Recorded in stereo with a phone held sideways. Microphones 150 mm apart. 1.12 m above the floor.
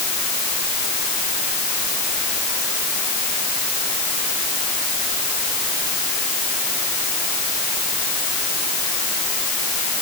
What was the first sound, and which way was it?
Only background noise.